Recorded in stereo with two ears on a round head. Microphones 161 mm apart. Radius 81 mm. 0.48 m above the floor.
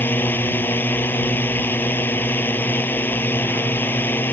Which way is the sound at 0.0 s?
10° left (ahead or behind).